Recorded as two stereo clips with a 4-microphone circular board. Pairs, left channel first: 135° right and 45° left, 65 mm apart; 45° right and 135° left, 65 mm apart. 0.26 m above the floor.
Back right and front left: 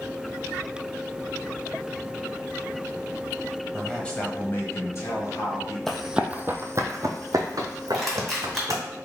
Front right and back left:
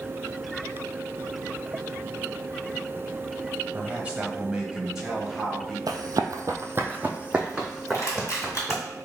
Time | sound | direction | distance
3.7 | a man speaking | 140° left | 1.0 m
5.9 | running footsteps | 140° left | 0.6 m
7.9 | crushing | 45° right | 1.9 m